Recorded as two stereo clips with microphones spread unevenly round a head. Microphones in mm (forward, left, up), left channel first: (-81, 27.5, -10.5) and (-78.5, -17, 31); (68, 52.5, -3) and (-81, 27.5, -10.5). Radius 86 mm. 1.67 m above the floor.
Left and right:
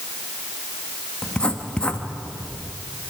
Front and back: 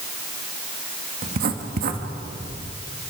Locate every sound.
1.2 s writing: straight behind, 1.8 m